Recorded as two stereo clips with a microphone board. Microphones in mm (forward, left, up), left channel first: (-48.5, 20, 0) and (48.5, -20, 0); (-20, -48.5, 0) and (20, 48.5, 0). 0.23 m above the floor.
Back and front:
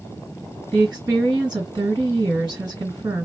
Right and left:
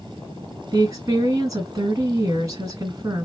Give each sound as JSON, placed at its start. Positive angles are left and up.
{"t": 0.7, "sound": "a woman speaking", "azimuth_deg": 15, "distance_m": 2.0}